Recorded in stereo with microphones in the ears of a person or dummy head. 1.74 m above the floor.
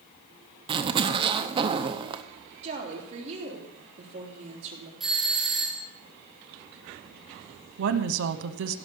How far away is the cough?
No cough in this recording.